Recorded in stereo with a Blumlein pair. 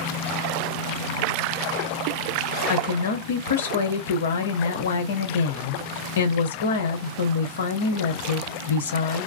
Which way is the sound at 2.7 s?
65° left.